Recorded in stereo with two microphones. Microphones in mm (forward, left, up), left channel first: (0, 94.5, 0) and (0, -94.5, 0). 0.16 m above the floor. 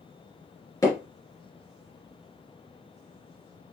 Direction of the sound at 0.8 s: 15° left (ahead or behind).